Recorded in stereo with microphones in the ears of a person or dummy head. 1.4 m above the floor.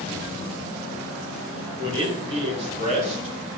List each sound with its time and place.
1.8 s a man speaking: 30° right (ahead or behind), 5.5 m; by 3.5 s 45° right (ahead or behind), 4.5 m